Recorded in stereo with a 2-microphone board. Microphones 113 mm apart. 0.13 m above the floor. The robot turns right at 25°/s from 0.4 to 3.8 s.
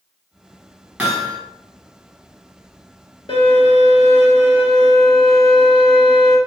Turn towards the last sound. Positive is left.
turn(degrees=45)  # may be behind; listen again after turning